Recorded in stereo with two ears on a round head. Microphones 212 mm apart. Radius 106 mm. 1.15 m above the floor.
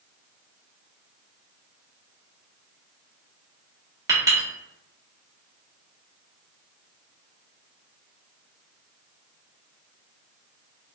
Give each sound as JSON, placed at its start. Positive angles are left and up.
{"t": 4.1, "sound": "a clink", "side_deg": -15, "distance_m": 1.1}